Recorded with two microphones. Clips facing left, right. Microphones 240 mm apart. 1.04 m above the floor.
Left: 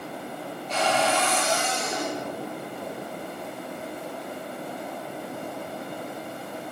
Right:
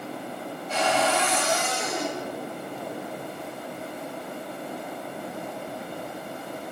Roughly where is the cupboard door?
Centre.